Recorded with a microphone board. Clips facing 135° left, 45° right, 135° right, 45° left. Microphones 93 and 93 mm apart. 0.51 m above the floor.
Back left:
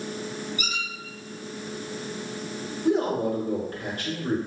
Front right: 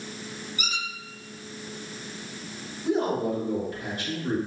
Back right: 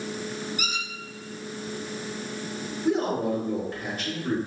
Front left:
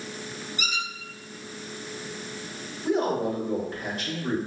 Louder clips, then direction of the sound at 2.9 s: Back left 2 dB, even; 130° left.